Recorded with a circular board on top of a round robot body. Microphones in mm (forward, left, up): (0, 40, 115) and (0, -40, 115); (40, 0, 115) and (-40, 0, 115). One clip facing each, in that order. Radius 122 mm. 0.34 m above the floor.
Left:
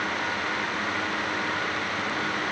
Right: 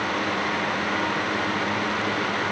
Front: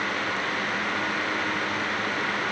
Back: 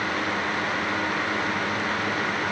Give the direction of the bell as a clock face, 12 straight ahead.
No bell in this recording.